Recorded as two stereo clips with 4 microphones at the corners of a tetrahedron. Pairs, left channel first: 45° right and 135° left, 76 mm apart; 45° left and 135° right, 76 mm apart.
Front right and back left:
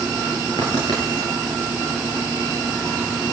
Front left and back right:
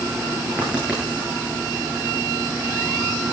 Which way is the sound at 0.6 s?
60° right.